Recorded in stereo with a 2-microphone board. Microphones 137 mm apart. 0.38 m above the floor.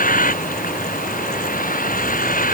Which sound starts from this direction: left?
A vehicle, at 0.0 s.